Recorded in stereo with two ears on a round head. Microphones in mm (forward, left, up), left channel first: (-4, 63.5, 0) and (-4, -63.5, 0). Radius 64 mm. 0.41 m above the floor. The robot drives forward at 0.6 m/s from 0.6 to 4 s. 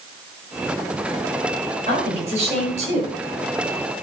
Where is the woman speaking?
45° right (ahead or behind), 8.5 m; by 3.1 s 50° right (ahead or behind), 8 m.